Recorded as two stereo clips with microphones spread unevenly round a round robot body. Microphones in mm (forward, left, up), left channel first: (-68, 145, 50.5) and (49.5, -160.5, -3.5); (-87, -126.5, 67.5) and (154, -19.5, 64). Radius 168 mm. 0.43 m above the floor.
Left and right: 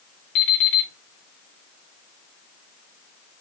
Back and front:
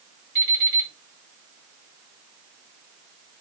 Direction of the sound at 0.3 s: 120° left.